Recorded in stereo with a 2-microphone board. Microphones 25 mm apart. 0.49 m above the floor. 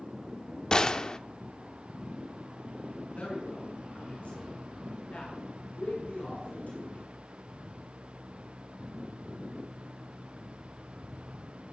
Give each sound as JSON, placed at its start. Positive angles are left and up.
{"t": 0.7, "sound": "a gunshot", "side_deg": 30, "distance_m": 0.8}
{"t": 3.1, "sound": "a man speaking", "side_deg": 75, "distance_m": 7.0}